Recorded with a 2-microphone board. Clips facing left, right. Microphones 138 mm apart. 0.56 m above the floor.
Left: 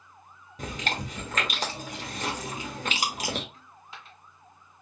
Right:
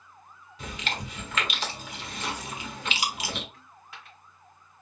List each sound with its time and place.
0.6 s chewing: 45° left (ahead or behind), 1.1 m
3.5 s a dropped coin: 30° left (ahead or behind), 1.6 m